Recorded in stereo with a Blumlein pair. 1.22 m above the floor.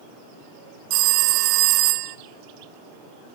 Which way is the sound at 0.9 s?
40° right.